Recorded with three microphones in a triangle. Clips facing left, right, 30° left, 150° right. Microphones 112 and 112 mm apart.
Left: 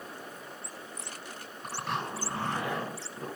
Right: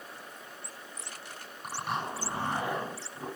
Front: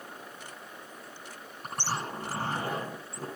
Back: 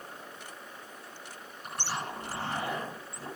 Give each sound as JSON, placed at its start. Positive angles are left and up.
{"t": 1.6, "sound": "a zipper", "azimuth_deg": -10, "distance_m": 10.0}